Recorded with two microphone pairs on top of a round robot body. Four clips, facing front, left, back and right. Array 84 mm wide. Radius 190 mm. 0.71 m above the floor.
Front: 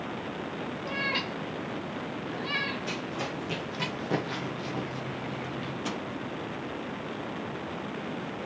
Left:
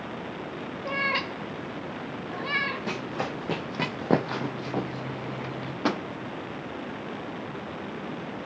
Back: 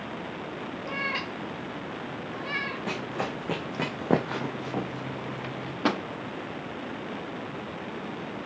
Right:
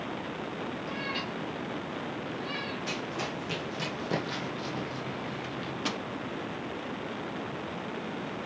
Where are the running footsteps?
135° left, 2.5 m; by 5.7 s 105° left, 1.1 m.